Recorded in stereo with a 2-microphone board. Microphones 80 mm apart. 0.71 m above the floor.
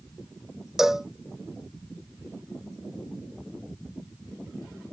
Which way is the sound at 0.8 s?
5° right (ahead or behind).